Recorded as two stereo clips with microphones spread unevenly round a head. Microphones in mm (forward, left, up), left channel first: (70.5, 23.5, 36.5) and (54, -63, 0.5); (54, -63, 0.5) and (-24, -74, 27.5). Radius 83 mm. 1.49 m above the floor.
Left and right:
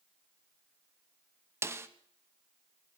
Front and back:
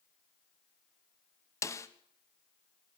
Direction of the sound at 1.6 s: 40° right.